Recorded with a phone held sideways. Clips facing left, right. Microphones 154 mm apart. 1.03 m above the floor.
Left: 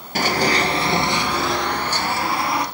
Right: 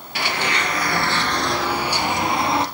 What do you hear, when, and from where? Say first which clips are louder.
0.1 s running footsteps: left 5 dB; 50° left (ahead or behind), 1.4 m; by 2.6 s 25° right (ahead or behind), 1.9 m